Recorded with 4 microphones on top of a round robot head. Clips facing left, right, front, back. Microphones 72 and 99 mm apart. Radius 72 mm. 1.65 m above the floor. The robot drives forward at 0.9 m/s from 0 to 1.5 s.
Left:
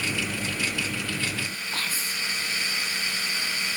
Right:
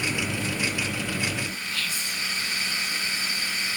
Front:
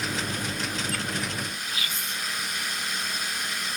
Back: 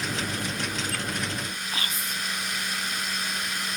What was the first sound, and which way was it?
Whispering, 135° left.